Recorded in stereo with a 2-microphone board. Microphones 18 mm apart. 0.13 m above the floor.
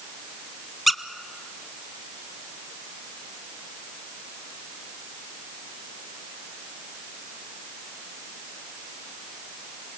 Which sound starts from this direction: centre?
A squeak, at 0.9 s.